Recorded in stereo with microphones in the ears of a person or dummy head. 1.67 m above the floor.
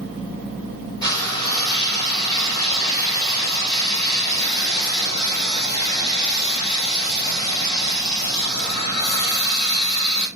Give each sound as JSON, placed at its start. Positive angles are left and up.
{"t": 1.0, "sound": "frying", "side_deg": 20, "distance_m": 2.5}